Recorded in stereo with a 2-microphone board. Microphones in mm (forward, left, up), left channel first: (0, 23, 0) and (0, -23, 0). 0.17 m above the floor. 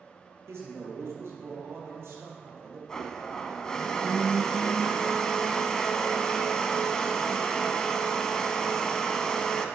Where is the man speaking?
70° right (ahead or behind), 3.5 m.